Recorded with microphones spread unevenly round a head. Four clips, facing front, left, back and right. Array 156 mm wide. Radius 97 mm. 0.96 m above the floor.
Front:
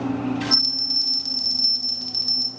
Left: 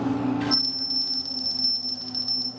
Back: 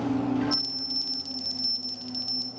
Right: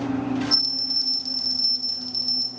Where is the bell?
45° left, 0.8 m.